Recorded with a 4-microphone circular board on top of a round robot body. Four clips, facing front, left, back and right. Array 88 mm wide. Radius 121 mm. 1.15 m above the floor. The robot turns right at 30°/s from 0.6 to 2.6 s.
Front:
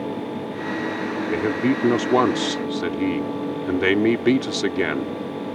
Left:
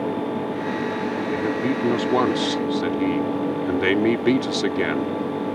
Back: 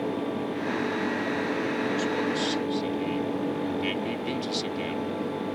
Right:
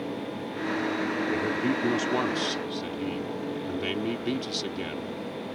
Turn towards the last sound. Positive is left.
turn(degrees=40)